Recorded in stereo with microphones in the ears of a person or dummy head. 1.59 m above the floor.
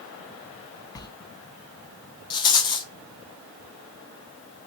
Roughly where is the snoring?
I don't hear snoring.